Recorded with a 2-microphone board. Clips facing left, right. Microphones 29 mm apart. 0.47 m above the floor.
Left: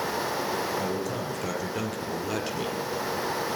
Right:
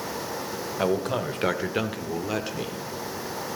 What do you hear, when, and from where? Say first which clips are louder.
0.8 s a man speaking: right 4 dB; 60° right (ahead or behind), 1.9 m; by 2.8 s 5° left (ahead or behind), 1.2 m